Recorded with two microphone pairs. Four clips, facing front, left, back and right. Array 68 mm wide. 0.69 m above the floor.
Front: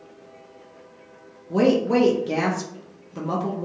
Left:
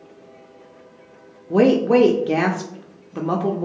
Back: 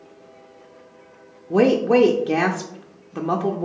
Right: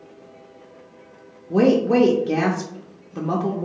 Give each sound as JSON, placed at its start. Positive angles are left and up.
{"t": 1.5, "sound": "a woman speaking", "azimuth_deg": 130, "distance_m": 0.5}